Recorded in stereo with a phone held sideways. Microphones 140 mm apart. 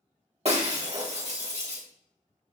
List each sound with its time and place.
0.5 s breaking glass: 50° right (ahead or behind), 1.5 m